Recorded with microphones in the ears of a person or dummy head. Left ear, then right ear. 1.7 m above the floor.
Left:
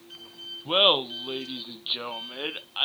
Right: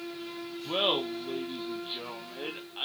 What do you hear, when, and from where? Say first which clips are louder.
0.7 s laughter: left 7 dB; 55° left (ahead or behind), 0.7 m